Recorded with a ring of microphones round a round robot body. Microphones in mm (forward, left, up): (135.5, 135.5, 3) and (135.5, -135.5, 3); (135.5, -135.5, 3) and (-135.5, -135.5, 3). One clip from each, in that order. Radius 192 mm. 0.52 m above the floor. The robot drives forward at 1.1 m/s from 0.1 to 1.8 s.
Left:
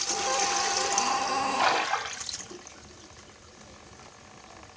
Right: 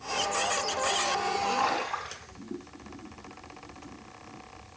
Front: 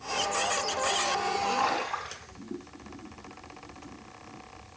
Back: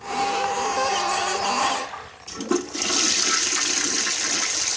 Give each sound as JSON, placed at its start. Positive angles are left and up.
{"t": 1.6, "sound": "a splash", "azimuth_deg": 80, "distance_m": 2.5}